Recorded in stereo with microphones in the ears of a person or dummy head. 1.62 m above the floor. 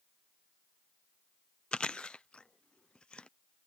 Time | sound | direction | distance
1.7 | chewing | 5° left (ahead or behind) | ?